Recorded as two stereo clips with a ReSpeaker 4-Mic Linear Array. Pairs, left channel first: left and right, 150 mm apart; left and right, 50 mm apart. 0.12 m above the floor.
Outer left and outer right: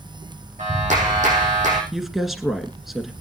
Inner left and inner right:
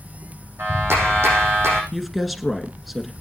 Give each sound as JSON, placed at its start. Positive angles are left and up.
{"t": 0.6, "sound": "a clap", "side_deg": -55, "distance_m": 6.0}
{"t": 1.9, "sound": "a woman speaking", "side_deg": 0, "distance_m": 1.7}